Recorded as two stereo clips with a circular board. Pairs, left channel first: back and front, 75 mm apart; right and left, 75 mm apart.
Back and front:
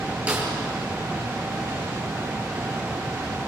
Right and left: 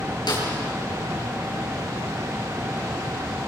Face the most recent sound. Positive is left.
turn(degrees=-70)